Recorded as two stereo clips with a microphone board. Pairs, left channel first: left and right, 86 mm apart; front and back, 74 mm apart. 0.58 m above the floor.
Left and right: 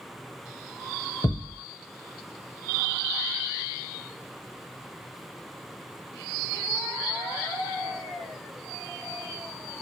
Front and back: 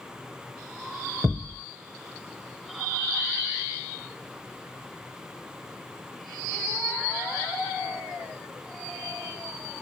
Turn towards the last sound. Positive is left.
turn(degrees=90)